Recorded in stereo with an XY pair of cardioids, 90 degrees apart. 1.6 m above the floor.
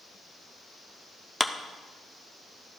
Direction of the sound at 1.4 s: 10° left.